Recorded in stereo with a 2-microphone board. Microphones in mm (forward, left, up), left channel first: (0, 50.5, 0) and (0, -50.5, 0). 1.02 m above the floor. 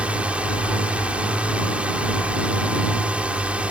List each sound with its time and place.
0.0 s a drone: 10° right (ahead or behind)